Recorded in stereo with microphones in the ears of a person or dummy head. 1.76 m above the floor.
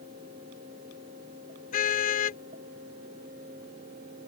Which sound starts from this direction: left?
A car horn, at 1.7 s.